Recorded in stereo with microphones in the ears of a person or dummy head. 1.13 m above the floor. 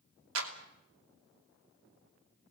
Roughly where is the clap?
Right.